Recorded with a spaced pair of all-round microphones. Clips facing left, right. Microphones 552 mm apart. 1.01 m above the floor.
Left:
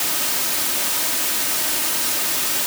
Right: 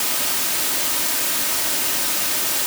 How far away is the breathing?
I don't hear breathing.